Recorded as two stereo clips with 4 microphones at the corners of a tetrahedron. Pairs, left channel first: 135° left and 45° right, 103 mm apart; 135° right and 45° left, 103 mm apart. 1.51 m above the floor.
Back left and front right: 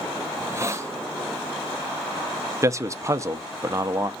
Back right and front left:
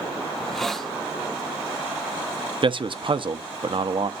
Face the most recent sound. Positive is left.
turn(degrees=15)